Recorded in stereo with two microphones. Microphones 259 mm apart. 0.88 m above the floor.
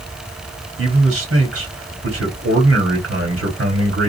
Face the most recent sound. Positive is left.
turn(degrees=-55)  # may be behind; listen again after turning